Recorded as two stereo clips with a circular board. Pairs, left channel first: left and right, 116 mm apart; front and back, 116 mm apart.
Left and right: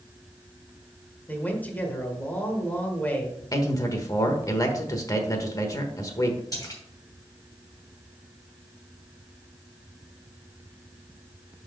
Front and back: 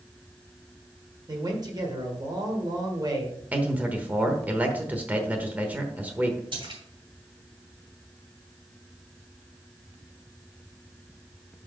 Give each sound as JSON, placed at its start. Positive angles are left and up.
{"t": 1.3, "sound": "a man speaking", "azimuth_deg": 155, "distance_m": 1.5}
{"t": 3.5, "sound": "a man speaking", "azimuth_deg": 115, "distance_m": 1.1}
{"t": 6.5, "sound": "a splash", "azimuth_deg": 145, "distance_m": 2.5}